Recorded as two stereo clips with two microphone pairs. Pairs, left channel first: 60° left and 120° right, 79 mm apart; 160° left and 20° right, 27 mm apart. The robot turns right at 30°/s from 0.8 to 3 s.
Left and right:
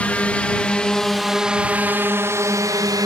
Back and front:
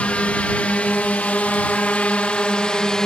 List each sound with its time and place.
0.0 s a drone: 135° left; by 3.1 s 135° right